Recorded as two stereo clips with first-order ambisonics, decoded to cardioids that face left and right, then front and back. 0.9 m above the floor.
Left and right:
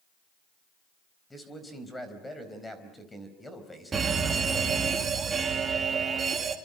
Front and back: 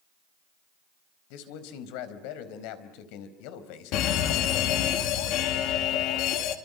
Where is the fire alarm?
20° right, 2.5 m.